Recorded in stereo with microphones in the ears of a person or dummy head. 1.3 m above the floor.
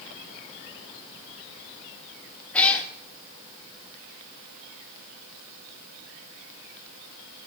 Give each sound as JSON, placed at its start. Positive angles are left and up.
{"t": 2.5, "sound": "a cat meowing", "side_deg": 10, "distance_m": 1.1}